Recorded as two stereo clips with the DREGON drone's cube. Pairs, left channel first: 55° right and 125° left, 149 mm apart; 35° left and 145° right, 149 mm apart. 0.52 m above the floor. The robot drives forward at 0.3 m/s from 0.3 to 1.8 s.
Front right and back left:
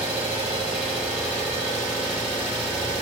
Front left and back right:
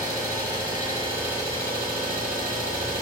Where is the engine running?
160° left, 1.5 m; by 3.0 s 165° left, 1.8 m.